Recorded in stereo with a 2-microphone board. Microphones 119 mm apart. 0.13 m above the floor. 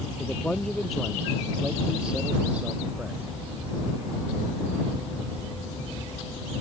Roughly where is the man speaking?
Centre.